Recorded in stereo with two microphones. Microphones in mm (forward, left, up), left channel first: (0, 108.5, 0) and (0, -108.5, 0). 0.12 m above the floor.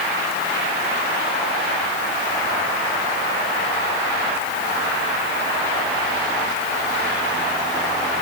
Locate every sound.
Only background noise.